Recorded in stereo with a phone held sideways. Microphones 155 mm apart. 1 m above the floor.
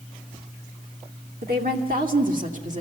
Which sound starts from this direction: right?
A woman speaking, at 1.4 s.